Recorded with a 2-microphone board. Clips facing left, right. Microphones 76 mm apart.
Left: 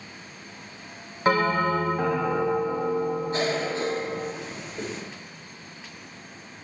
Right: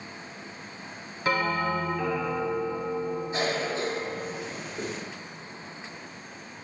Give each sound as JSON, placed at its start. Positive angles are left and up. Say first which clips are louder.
{"t": 1.2, "sound": "a bell", "louder": "left 5 dB", "side_deg": 40, "distance_m": 0.8}
{"t": 3.3, "sound": "a cough", "louder": "left 2 dB", "side_deg": -5, "distance_m": 3.5}